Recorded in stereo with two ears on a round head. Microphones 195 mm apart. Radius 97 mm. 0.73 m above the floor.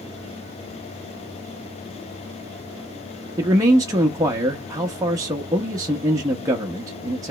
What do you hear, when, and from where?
3.4 s a man speaking: 15° right (ahead or behind), 0.6 m